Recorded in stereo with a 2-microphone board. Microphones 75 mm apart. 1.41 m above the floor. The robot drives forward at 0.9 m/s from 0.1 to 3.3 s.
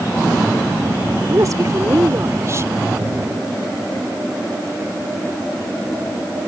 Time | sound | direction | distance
1.3 | a woman speaking | 50° right (ahead or behind) | ?